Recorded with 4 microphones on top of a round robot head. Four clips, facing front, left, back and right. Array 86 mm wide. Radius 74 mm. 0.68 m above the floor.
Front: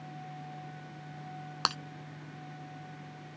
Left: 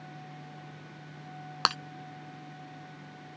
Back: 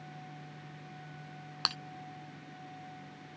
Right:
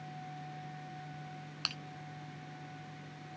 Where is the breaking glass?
70° left.